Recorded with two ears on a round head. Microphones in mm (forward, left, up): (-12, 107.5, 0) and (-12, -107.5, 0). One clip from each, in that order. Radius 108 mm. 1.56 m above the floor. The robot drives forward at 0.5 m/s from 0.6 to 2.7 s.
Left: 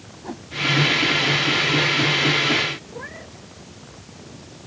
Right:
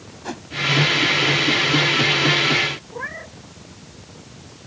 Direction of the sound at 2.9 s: 40° right (ahead or behind).